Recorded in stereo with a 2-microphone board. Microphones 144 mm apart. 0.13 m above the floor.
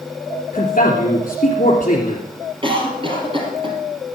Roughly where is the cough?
Right.